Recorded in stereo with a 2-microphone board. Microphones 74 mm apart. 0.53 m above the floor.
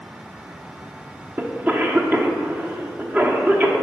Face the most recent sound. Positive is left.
turn(degrees=-25)  # may be behind; listen again after turning